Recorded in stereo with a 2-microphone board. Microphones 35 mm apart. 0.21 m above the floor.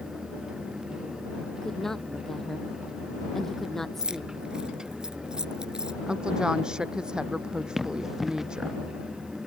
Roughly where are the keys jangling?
Centre.